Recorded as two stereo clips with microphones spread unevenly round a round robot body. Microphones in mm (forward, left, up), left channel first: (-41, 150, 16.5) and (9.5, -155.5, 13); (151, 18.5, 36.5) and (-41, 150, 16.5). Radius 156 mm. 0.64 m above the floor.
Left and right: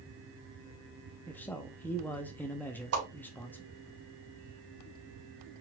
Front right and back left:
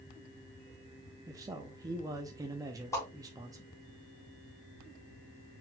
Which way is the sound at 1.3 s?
175° left.